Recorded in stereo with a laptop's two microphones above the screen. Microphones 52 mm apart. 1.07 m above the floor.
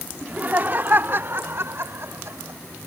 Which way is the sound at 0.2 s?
30° right (ahead or behind).